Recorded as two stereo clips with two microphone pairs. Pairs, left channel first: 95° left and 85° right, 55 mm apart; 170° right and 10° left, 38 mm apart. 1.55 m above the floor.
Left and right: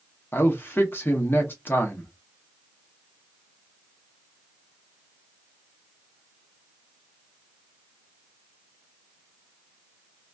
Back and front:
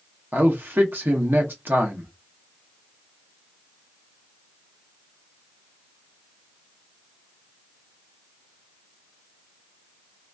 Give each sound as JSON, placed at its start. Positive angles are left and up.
{"t": 0.3, "sound": "a man speaking", "azimuth_deg": 40, "distance_m": 1.1}